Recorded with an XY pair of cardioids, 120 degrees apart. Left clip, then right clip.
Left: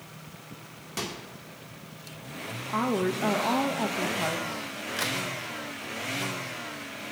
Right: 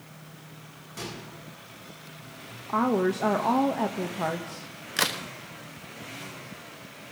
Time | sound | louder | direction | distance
1.0 | a microwave | left 4 dB | 55° left | 2 m
2.7 | a woman speaking | right 3 dB | 20° right | 0.6 m
5.0 | a crack | right 4 dB | 50° right | 0.8 m